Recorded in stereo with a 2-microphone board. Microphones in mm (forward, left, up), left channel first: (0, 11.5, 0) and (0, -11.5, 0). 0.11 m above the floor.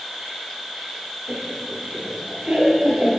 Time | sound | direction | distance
0.0 | an insect | 15° right (ahead or behind) | 2.5 m
1.3 | laughter | 60° right (ahead or behind) | 2 m